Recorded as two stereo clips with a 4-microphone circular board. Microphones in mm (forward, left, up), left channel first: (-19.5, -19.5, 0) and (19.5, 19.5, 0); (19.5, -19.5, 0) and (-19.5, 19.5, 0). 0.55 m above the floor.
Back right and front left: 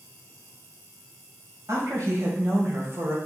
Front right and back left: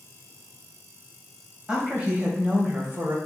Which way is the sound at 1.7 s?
65° left.